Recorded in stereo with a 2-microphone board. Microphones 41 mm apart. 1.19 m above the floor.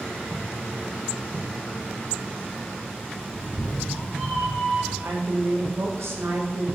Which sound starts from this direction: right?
A woman speaking, at 5.0 s.